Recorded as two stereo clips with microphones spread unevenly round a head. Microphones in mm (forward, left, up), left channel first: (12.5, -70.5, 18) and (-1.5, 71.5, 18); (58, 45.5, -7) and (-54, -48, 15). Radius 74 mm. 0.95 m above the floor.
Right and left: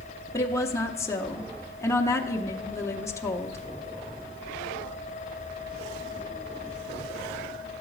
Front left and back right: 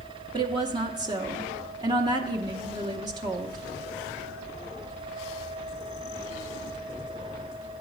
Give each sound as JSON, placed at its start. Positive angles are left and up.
{"t": 0.3, "sound": "a woman speaking", "azimuth_deg": -110, "distance_m": 0.7}